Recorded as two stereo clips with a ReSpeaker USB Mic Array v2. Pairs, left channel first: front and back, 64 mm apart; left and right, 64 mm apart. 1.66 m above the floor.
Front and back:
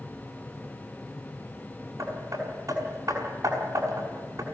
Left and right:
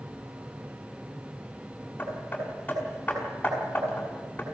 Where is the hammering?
155° left, 6 m.